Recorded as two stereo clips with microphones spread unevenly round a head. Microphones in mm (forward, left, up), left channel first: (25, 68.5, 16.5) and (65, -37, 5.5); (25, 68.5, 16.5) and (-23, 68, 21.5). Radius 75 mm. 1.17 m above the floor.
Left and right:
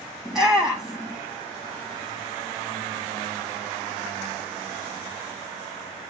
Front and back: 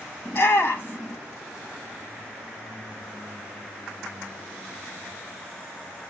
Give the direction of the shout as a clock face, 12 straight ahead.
11 o'clock.